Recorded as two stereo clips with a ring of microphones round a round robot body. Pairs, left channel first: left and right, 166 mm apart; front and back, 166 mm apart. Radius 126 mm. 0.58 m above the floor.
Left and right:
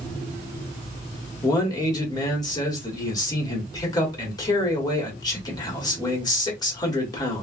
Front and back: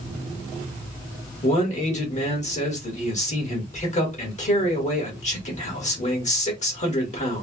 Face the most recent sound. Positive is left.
turn(degrees=30)